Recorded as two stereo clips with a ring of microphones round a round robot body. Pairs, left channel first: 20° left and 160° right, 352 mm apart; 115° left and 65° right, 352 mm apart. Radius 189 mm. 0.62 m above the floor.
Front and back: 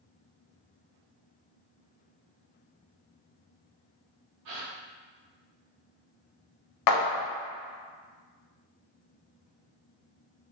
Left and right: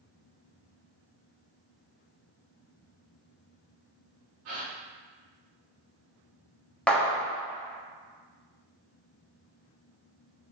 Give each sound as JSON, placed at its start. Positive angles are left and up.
{"t": 4.5, "sound": "a gasp", "azimuth_deg": -120, "distance_m": 0.8}
{"t": 6.9, "sound": "a clap", "azimuth_deg": 25, "distance_m": 0.6}